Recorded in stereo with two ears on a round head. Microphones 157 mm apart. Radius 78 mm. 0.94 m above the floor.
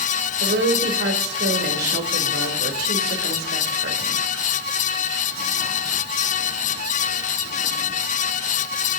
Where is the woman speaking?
65° right (ahead or behind), 3 m.